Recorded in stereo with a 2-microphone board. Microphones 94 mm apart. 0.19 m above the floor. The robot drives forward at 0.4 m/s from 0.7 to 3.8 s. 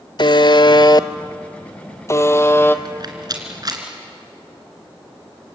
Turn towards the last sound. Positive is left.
turn(degrees=-45)  # may be behind; listen again after turning